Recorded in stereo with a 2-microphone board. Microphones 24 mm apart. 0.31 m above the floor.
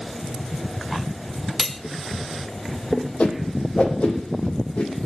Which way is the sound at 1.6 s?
10° left (ahead or behind).